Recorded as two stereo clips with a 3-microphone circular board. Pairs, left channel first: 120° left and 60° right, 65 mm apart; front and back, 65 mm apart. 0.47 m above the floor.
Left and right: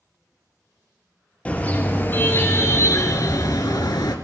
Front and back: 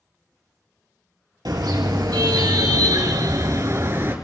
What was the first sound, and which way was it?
A car horn, 170° right.